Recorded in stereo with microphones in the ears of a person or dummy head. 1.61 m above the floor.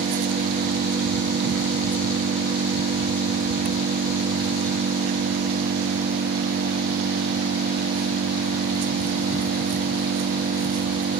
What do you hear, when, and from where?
0.0 s an engine running: 50° right (ahead or behind)